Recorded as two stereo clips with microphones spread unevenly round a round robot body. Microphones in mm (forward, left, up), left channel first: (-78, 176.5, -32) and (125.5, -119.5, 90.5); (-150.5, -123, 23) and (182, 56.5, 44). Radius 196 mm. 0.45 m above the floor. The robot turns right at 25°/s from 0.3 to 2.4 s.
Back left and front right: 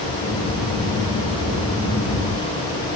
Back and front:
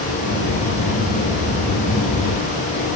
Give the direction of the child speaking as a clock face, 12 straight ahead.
I don't hear a child speaking.